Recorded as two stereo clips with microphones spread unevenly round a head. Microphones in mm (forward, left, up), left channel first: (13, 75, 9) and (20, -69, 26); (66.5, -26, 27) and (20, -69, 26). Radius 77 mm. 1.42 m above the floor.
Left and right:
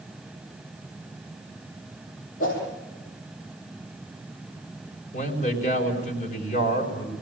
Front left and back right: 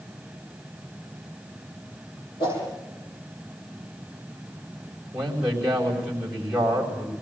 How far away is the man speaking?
About 5 m.